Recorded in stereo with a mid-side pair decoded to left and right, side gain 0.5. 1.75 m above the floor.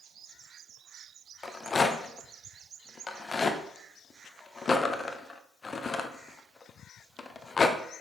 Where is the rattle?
30° left, 1.1 m.